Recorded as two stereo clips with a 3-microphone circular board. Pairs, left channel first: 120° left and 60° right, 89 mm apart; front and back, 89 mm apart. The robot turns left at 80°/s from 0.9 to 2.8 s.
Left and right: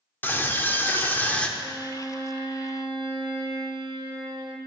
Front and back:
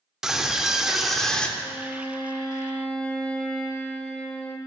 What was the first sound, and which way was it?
A scream, 110° left.